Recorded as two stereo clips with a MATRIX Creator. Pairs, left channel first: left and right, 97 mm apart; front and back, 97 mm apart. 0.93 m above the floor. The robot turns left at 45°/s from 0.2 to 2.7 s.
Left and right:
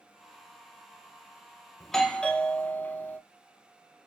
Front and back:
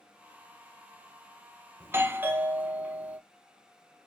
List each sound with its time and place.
1.8 s a doorbell: straight behind, 0.7 m; by 3.2 s 135° left, 0.7 m